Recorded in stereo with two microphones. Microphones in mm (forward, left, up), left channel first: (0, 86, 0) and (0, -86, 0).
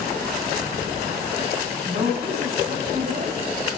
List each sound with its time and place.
1.9 s a woman speaking: 50° right (ahead or behind), 3 m